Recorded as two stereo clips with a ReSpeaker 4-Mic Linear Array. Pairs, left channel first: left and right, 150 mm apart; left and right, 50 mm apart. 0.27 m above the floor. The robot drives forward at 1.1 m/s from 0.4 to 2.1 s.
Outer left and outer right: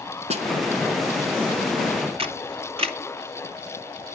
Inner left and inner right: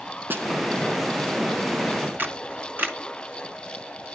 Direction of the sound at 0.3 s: 45° right (ahead or behind).